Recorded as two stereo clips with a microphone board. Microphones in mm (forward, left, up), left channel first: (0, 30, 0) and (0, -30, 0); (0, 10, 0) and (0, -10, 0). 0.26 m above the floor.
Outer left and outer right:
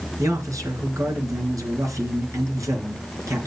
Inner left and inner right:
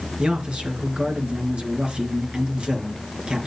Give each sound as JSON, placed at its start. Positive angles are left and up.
{"t": 0.2, "sound": "a man speaking", "side_deg": -65, "distance_m": 3.0}